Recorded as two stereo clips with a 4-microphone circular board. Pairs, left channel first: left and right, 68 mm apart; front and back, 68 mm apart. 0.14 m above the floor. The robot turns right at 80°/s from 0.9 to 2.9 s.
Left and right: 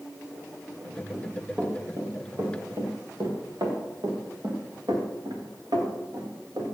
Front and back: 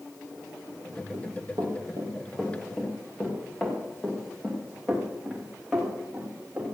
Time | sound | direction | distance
1.1 | running footsteps | 175° left | 5.5 m